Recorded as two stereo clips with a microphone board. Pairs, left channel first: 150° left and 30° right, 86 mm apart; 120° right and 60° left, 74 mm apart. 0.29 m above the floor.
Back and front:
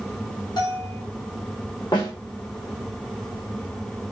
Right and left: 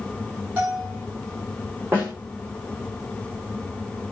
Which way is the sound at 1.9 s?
120° left.